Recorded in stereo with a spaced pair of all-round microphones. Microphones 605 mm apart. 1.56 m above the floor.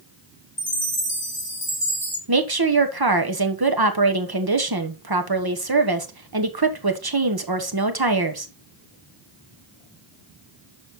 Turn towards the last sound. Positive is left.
turn(degrees=-35)  # may be behind; listen again after turning